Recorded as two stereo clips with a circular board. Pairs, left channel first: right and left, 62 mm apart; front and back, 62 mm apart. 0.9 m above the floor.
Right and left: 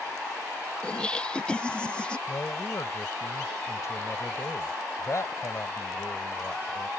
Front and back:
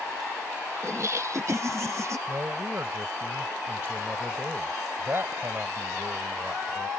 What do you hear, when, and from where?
0.8 s laughter: 160° right
2.3 s a man speaking: 125° right